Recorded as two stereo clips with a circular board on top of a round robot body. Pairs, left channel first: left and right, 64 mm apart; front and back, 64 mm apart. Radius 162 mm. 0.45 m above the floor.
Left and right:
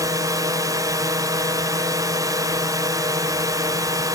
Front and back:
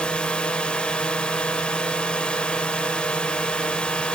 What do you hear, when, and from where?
0.0 s a drone: 75° right